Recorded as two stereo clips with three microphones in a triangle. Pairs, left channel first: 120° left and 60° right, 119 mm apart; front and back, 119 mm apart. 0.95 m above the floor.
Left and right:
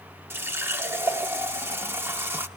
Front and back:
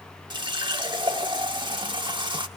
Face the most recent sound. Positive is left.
turn(degrees=-130)